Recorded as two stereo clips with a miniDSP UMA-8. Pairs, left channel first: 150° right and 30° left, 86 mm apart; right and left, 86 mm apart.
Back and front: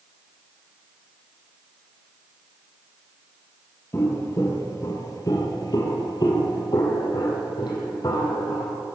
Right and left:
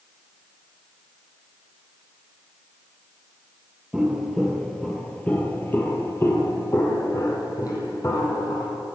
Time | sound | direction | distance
3.9 | footsteps | 170° left | 2 m